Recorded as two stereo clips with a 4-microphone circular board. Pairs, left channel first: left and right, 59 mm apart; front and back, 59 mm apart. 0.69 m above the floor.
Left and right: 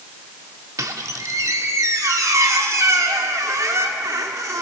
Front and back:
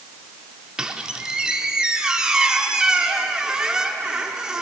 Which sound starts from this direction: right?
A squeak, at 0.8 s.